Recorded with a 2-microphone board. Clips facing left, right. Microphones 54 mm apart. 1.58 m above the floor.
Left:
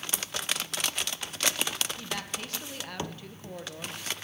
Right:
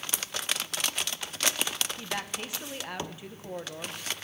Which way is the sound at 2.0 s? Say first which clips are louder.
Right 1 dB; 15° right (ahead or behind).